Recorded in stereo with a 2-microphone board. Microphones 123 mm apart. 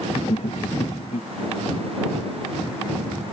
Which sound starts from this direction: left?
Laughter, at 0.1 s.